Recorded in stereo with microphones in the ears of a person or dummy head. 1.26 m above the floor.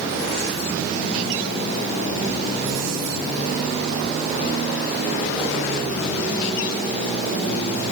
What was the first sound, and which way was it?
Only background noise.